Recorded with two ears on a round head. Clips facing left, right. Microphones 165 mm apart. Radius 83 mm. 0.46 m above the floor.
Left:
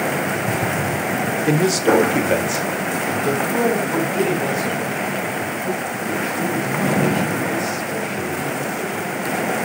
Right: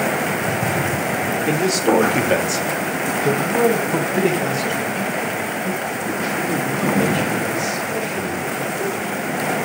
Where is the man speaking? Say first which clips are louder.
Left 2 dB; 20° left (ahead or behind), 1.4 m; by 9.1 s 20° right (ahead or behind), 10.5 m.